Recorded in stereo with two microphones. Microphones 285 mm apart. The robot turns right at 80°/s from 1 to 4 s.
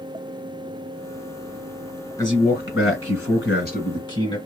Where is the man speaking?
15° left, 2.5 m; by 4.4 s 160° left, 2.5 m.